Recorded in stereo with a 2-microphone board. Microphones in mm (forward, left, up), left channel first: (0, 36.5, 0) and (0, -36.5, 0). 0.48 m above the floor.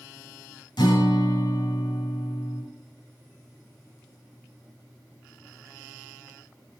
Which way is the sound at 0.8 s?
80° left.